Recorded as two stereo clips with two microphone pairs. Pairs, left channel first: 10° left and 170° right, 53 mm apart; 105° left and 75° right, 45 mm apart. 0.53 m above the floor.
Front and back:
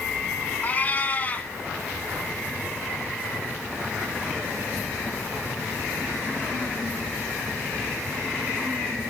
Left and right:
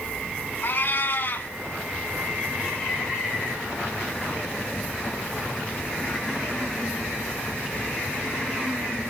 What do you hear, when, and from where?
0.6 s a cat meowing: 70° left, 1.6 m